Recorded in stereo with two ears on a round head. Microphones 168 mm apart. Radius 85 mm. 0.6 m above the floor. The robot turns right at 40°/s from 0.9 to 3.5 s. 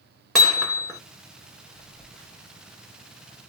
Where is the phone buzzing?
10° left (ahead or behind), 1.9 m; by 3.5 s 45° right (ahead or behind), 1.9 m.